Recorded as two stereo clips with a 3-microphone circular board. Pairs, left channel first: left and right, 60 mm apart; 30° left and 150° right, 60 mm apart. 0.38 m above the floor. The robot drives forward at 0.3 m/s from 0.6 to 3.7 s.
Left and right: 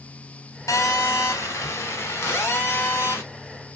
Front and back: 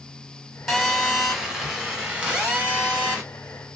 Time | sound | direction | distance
0.7 | a phone buzzing | 120° left | 0.9 m